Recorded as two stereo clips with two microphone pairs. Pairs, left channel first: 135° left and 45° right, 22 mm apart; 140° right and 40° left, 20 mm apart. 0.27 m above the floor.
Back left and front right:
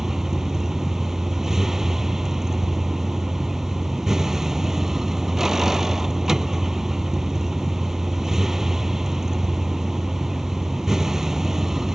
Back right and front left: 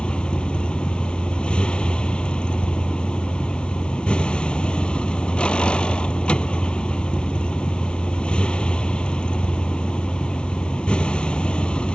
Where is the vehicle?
115° right.